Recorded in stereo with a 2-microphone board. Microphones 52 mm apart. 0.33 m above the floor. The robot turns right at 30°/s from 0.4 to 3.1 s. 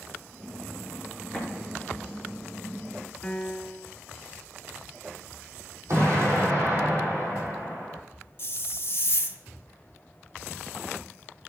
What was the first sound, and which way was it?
An explosion, 5° left (ahead or behind).